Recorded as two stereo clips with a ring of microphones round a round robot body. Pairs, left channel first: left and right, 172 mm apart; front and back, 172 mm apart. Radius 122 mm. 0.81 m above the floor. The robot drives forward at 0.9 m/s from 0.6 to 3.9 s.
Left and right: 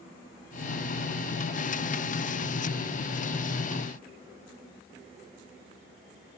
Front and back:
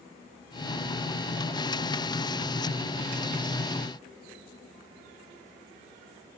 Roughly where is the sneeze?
No sneeze in this recording.